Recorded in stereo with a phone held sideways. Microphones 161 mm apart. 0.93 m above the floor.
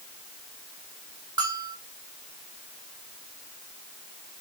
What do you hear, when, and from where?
1.4 s a bell: 30° right (ahead or behind), 1.9 m